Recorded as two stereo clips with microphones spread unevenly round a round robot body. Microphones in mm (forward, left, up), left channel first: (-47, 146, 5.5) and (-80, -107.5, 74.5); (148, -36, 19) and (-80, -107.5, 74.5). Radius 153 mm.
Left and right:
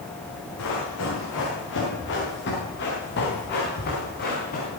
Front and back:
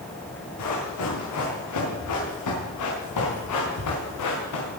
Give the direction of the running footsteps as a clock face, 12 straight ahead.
11 o'clock.